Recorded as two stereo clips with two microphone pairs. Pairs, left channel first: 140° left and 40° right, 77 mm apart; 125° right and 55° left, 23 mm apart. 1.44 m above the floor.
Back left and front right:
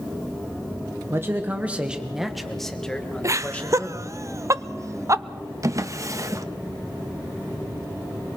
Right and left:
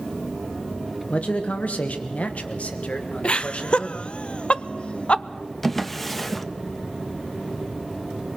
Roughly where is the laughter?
Right.